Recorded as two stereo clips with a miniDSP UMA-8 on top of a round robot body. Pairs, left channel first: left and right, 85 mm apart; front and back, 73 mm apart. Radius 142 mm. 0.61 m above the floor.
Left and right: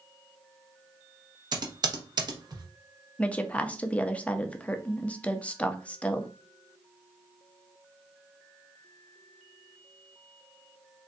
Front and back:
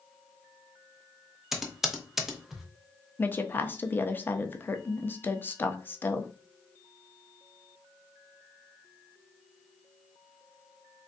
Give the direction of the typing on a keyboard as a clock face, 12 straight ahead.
3 o'clock.